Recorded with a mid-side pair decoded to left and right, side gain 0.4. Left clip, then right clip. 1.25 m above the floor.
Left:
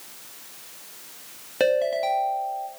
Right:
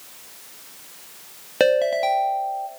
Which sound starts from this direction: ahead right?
A ringtone, at 1.6 s.